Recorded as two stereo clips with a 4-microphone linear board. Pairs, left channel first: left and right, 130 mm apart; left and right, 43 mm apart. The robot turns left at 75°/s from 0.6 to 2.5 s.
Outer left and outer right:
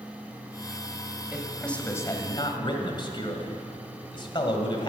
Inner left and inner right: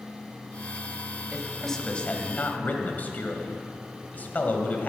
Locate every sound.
1.3 s a man speaking: 165° right, 1.6 m; by 4.9 s 105° left, 1.6 m